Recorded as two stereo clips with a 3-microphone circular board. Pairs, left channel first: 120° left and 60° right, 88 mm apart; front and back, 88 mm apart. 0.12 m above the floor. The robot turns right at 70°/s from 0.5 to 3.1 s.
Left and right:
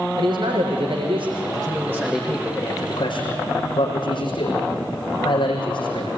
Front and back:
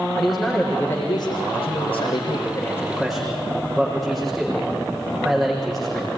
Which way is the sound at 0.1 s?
90° right.